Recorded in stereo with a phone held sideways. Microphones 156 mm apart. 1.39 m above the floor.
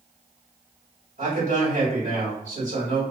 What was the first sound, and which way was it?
A man speaking, 55° right (ahead or behind).